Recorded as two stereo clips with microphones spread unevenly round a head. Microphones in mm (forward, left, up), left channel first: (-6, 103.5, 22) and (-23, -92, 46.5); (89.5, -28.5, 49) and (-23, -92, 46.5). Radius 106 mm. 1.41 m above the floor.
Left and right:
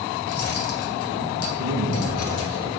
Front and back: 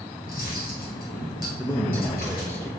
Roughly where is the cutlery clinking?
Left.